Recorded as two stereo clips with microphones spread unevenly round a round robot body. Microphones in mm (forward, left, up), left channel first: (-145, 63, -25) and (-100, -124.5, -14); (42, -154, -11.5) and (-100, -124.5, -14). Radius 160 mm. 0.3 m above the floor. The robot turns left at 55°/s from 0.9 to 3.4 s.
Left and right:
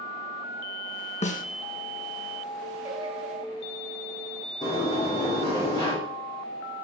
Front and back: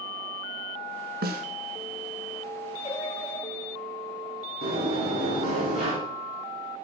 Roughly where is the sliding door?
Behind.